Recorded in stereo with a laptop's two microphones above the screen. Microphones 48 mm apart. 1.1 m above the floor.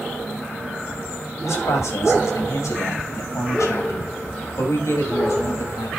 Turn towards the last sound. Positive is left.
turn(degrees=70)  # may be behind; listen again after turning